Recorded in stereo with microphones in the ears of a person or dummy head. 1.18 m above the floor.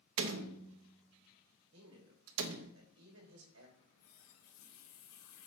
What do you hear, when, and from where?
0.2 s a door slam: 70° right (ahead or behind), 0.7 m
1.7 s a man speaking: 85° right, 2.5 m
3.8 s a running tap: 75° left (ahead or behind), 2 m